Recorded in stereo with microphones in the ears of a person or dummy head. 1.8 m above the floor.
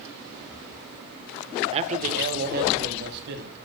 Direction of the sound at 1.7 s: 35° right (ahead or behind).